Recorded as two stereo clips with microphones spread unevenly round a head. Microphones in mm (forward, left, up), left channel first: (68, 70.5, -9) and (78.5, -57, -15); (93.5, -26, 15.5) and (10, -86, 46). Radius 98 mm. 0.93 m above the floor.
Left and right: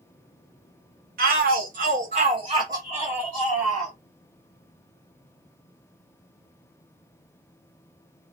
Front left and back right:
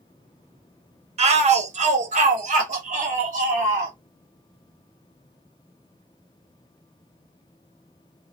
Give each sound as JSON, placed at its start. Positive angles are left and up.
{"t": 1.2, "sound": "a shout", "azimuth_deg": -120, "distance_m": 1.1}